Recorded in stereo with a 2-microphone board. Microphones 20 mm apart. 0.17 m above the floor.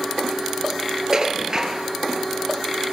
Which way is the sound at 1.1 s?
30° right (ahead or behind).